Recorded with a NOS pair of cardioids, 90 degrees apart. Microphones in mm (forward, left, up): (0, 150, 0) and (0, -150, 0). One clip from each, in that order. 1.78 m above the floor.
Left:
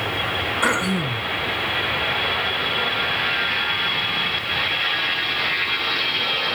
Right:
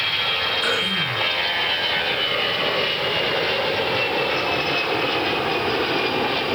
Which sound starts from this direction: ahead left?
Throat clearing, at 0.6 s.